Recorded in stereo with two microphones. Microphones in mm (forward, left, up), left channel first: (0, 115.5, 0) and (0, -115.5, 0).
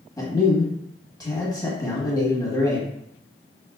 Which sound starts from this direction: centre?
A man speaking, at 0.2 s.